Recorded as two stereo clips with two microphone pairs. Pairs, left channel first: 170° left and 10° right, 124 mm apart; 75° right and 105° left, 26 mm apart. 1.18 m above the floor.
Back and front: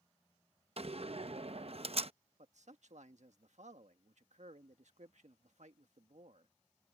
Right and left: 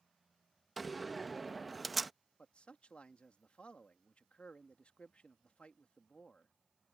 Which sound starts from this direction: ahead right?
A man speaking, at 2.4 s.